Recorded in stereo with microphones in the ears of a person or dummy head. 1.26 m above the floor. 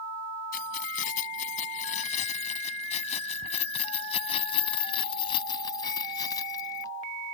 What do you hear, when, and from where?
0.5 s keys jangling: 50° left (ahead or behind); by 6.9 s 25° left (ahead or behind)